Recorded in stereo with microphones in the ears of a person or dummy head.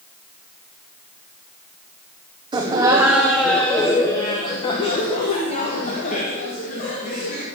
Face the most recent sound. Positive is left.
turn(degrees=45)  # may be behind; listen again after turning